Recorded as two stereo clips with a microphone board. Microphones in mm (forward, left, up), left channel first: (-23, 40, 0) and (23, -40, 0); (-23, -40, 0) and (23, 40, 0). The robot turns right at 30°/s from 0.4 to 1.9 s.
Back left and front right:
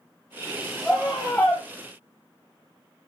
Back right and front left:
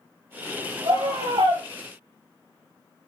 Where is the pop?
No pop in this recording.